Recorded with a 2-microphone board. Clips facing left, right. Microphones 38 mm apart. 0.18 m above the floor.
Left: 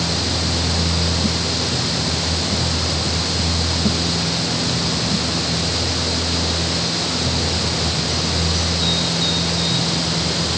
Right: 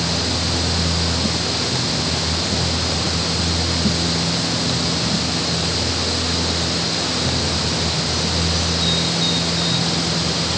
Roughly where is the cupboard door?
I don't hear a cupboard door.